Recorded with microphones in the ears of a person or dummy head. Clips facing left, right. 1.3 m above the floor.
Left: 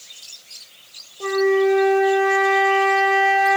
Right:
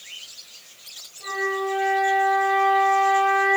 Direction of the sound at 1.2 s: 85° left.